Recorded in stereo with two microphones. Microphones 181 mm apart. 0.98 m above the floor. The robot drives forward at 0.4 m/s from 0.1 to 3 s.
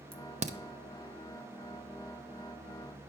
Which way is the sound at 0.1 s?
30° right (ahead or behind).